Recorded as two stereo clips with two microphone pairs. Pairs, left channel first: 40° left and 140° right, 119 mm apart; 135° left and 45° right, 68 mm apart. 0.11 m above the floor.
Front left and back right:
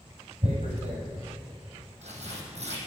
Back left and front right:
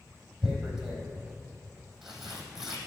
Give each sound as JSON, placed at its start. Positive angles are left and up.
{"t": 0.4, "sound": "tearing paper", "azimuth_deg": -135, "distance_m": 3.5}